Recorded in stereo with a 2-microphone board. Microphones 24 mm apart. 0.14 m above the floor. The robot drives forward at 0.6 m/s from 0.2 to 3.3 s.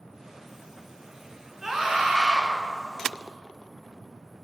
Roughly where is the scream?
Right.